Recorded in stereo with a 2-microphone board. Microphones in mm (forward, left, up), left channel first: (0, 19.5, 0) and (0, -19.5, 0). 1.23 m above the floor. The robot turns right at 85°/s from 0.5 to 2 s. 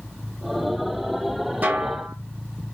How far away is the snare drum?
About 0.8 m.